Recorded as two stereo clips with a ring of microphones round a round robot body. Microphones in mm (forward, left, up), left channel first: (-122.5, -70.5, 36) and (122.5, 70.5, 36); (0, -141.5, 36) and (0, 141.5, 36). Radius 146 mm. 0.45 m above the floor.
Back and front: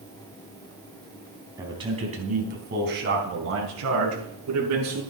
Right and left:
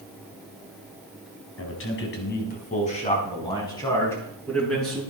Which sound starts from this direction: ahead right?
A man speaking, at 1.6 s.